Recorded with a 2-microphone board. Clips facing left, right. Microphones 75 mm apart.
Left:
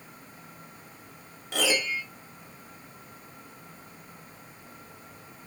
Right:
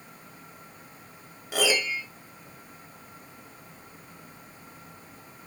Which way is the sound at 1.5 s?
5° right (ahead or behind).